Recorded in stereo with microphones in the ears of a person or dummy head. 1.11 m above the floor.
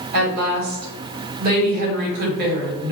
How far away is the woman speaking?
About 1.8 m.